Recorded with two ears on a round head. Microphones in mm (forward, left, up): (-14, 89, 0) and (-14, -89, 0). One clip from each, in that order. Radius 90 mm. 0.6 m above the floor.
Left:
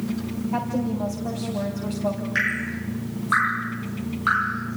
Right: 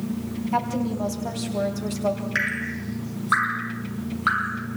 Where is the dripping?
20° right (ahead or behind), 4 m.